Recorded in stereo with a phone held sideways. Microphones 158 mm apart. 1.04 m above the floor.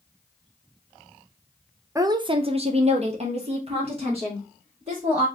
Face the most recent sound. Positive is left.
turn(degrees=-35)  # may be behind; listen again after turning